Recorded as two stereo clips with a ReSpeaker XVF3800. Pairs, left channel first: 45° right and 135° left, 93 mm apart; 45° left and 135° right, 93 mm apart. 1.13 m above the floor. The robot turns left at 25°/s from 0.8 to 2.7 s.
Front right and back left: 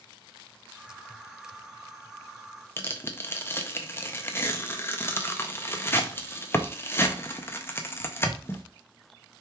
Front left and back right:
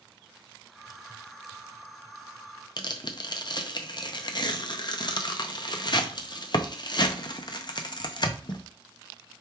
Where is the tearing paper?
15° left, 0.6 m.